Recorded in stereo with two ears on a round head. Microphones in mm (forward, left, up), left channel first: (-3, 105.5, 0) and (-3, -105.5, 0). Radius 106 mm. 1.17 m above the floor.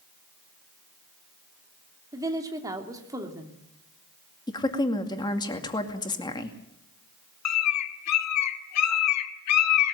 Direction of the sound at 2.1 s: 15° right (ahead or behind).